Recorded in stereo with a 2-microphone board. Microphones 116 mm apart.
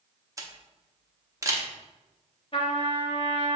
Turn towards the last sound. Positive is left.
turn(degrees=45)  # may be behind; listen again after turning